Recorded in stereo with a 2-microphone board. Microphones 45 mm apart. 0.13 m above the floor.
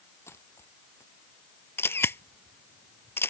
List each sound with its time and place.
0.3 s a dropped coin: 75° left (ahead or behind)
1.8 s a camera shutter: 65° left (ahead or behind)